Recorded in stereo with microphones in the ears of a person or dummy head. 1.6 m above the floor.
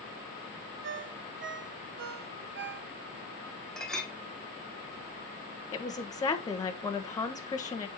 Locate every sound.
0.8 s a ringtone: 65° right (ahead or behind), 0.9 m
3.8 s a clink: 5° left (ahead or behind), 0.8 m
5.7 s a woman speaking: 20° left (ahead or behind), 1.1 m